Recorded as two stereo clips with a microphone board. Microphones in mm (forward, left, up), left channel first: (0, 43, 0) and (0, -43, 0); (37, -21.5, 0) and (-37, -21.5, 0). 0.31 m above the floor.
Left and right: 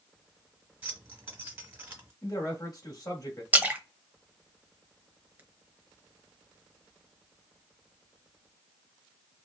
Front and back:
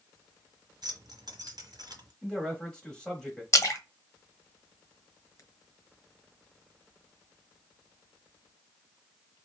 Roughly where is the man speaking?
Left.